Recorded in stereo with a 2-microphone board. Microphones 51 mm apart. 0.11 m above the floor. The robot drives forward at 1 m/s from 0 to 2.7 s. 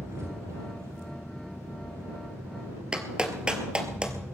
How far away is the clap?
About 1.7 m.